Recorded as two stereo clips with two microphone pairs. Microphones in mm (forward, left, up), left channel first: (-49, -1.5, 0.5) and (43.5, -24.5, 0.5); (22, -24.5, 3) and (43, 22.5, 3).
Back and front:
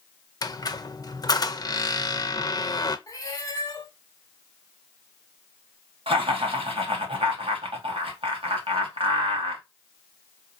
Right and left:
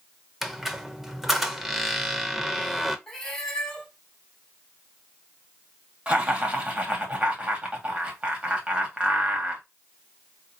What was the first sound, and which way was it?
A squeak, 150° left.